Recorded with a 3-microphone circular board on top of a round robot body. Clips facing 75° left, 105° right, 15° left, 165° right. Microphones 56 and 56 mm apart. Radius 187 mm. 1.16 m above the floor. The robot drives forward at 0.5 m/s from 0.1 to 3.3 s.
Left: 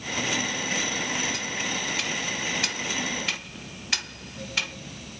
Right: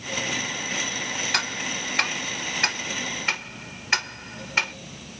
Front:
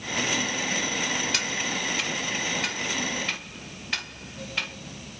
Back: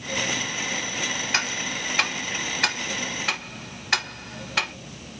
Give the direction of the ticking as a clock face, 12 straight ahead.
4 o'clock.